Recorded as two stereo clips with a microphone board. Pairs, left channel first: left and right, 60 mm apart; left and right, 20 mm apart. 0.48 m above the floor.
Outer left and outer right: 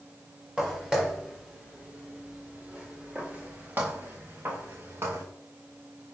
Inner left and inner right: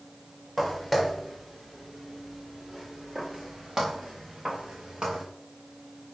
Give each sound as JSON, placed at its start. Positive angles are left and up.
{"t": 0.6, "sound": "footsteps", "side_deg": -10, "distance_m": 5.0}